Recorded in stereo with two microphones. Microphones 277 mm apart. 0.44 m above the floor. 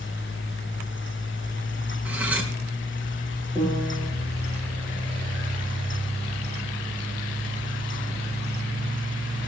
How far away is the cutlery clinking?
About 3.5 m.